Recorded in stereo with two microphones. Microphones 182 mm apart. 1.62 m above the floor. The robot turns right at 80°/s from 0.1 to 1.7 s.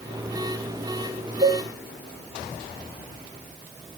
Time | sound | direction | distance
1.4 | a cowbell | 55° right (ahead or behind) | 3 m